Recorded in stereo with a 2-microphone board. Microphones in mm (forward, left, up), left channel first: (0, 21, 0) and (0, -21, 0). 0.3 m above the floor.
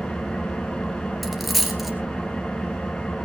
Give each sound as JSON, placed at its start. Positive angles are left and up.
{"t": 0.0, "sound": "an engine running", "side_deg": 15, "distance_m": 3.0}
{"t": 1.2, "sound": "a dropped coin", "side_deg": 0, "distance_m": 2.0}